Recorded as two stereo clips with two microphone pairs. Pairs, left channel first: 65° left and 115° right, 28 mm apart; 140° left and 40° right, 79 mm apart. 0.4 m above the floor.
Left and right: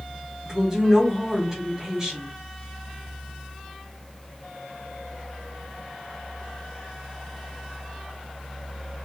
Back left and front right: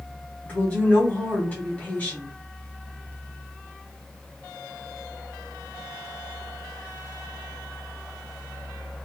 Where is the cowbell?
I don't hear a cowbell.